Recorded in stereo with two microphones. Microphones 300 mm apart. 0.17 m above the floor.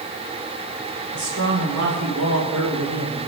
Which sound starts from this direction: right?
A man speaking, at 1.1 s.